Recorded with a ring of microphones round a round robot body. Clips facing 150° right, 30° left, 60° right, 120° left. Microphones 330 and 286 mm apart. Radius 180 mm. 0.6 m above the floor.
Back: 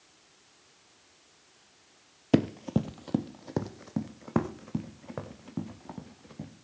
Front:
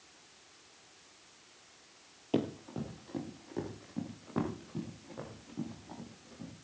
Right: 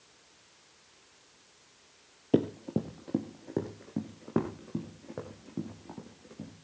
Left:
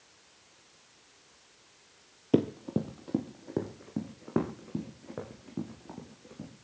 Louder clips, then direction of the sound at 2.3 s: Back 8 dB, left 1 dB; 155° right.